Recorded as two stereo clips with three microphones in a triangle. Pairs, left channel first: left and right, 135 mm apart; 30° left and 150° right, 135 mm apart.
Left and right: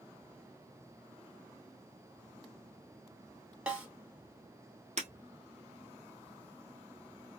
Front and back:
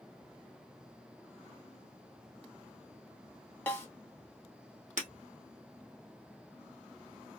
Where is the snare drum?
25° right, 1.5 m.